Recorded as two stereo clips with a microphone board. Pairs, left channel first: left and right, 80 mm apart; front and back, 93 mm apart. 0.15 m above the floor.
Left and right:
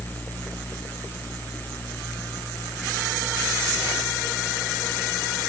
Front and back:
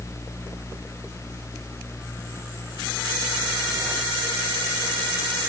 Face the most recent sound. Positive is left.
No sound to turn to.